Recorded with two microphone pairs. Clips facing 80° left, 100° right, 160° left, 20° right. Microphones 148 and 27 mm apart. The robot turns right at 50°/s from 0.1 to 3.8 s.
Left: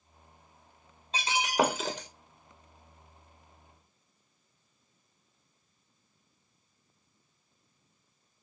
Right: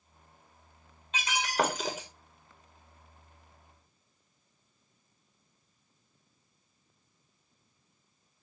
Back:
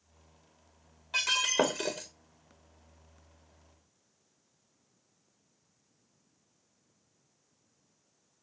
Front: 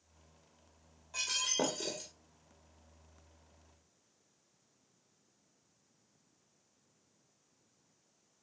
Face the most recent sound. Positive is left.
turn(degrees=-95)